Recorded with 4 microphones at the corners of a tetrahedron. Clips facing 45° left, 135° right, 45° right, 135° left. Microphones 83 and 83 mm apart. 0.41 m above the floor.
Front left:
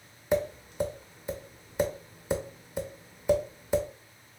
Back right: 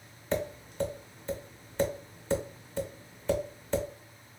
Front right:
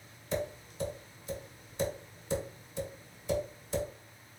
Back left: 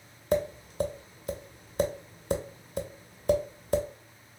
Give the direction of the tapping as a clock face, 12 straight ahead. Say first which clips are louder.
Front left 4 dB, back left 8 dB; 8 o'clock.